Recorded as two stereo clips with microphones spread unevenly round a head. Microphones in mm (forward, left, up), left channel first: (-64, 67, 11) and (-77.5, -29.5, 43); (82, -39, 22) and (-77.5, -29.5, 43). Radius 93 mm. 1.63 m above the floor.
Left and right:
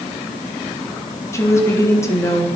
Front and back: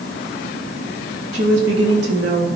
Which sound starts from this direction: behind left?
A woman speaking, at 1.3 s.